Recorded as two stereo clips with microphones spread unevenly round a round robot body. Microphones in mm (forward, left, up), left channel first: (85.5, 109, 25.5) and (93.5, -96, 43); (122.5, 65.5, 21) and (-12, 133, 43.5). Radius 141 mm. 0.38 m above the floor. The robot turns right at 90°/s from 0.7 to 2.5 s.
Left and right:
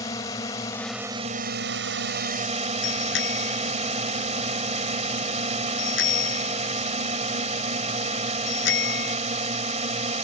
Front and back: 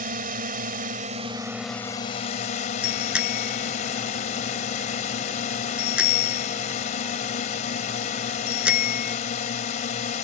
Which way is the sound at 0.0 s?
160° left.